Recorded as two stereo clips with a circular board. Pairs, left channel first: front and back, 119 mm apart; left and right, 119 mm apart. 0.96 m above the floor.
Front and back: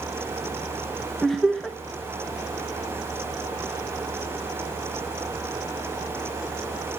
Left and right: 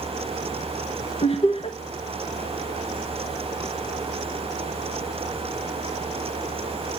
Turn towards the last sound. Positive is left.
turn(degrees=85)